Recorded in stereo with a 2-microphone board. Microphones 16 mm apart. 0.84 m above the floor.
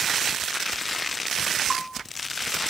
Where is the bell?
10° left (ahead or behind), 0.7 m.